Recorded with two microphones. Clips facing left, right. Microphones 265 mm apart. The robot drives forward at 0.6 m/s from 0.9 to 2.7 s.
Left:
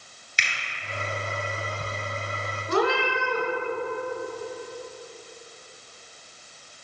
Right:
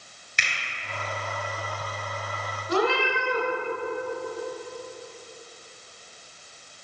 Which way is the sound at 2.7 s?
55° left (ahead or behind).